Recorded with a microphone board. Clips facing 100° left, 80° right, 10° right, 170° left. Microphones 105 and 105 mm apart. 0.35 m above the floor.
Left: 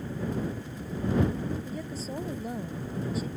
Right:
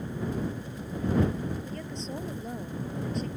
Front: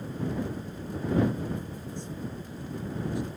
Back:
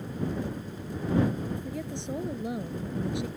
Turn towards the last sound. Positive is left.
turn(degrees=-175)